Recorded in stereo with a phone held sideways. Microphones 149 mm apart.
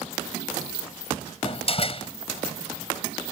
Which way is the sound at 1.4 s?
40° left (ahead or behind).